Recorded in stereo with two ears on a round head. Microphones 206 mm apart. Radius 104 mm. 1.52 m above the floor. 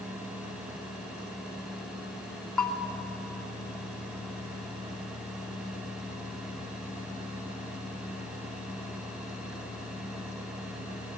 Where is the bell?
5° left (ahead or behind), 2.0 m.